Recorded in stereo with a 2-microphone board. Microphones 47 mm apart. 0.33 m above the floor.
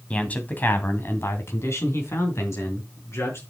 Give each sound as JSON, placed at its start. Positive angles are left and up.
{"t": 0.1, "sound": "a man speaking", "side_deg": 25, "distance_m": 2.5}